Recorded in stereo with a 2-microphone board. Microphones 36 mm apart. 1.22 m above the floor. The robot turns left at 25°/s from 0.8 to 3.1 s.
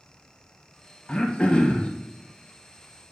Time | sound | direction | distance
1.1 | throat clearing | 25° left (ahead or behind) | 0.6 m